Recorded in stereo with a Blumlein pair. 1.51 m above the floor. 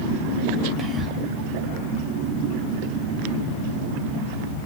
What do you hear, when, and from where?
0.8 s whispering: 25° right, 0.5 m